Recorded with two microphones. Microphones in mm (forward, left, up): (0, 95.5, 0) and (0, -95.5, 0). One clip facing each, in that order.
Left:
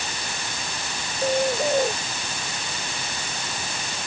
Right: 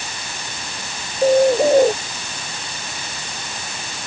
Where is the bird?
35° right (ahead or behind).